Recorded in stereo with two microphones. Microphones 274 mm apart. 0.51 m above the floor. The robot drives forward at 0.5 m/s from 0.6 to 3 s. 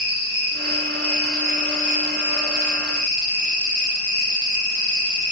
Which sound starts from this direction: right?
An insect, at 0.0 s.